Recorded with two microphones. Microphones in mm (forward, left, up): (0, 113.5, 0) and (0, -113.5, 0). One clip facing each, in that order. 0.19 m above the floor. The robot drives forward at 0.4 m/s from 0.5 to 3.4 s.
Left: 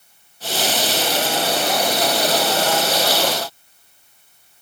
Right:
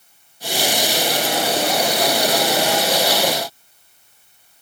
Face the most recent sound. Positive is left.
No sound to turn to.